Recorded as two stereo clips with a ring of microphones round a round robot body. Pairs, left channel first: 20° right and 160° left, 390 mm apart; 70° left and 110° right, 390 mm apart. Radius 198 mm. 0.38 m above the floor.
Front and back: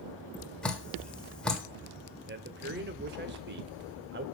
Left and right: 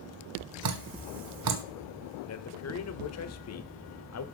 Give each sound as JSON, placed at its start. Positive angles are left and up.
{"t": 0.6, "sound": "dripping", "azimuth_deg": -110, "distance_m": 1.4}
{"t": 2.3, "sound": "a man speaking", "azimuth_deg": 105, "distance_m": 1.2}